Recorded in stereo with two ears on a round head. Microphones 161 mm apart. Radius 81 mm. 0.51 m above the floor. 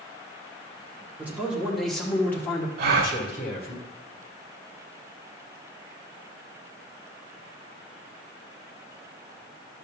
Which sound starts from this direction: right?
A gasp, at 2.8 s.